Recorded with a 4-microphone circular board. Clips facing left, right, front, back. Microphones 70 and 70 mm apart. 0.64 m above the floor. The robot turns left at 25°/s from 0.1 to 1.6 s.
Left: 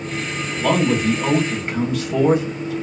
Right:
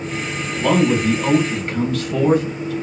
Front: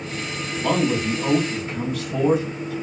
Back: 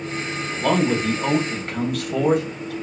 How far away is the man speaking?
About 1.6 m.